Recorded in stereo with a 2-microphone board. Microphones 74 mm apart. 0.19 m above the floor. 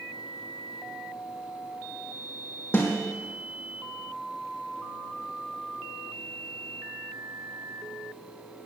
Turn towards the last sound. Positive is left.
turn(degrees=35)  # may be behind; listen again after turning